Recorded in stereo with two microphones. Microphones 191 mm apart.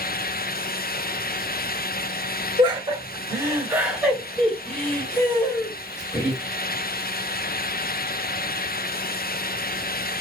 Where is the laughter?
30° right (ahead or behind), 1.8 m; by 6.4 s 35° left (ahead or behind), 1.9 m.